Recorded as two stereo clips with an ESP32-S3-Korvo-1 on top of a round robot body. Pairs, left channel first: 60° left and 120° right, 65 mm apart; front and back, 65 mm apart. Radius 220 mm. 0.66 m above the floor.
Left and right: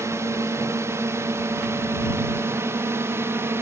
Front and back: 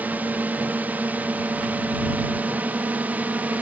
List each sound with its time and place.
0.0 s a drone: 125° right; by 3.6 s 130° right